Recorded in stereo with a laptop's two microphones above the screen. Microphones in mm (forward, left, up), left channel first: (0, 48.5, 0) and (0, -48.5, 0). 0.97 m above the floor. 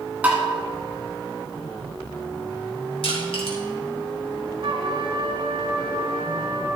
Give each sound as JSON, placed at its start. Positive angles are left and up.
{"t": 0.2, "sound": "tapping", "side_deg": -15, "distance_m": 1.4}
{"t": 3.0, "sound": "crushing", "side_deg": 70, "distance_m": 3.0}
{"t": 4.6, "sound": "a trumpet", "side_deg": -60, "distance_m": 1.5}